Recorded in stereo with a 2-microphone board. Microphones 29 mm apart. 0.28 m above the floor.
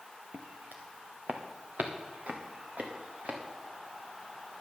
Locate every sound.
0.3 s footsteps: 75° right (ahead or behind), 1.6 m; by 3.4 s 55° right (ahead or behind), 3 m